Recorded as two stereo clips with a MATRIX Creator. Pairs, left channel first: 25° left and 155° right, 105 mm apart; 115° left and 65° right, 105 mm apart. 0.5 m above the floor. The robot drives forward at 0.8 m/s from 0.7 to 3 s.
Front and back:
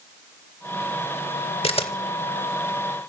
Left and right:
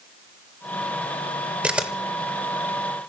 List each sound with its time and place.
1.6 s a camera shutter: 10° left, 1.0 m; by 1.9 s 15° left, 0.8 m